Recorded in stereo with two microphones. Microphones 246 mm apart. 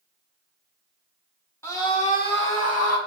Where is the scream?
10° left (ahead or behind), 1.8 m; by 3.0 s 75° left (ahead or behind), 1.6 m.